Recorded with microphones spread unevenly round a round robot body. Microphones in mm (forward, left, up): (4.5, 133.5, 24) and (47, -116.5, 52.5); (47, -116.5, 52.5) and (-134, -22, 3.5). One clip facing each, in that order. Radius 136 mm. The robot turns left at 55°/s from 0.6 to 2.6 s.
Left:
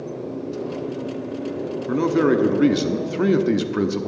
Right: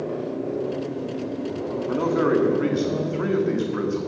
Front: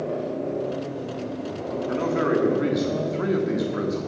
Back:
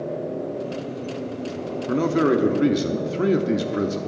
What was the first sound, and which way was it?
A man speaking, 150° left.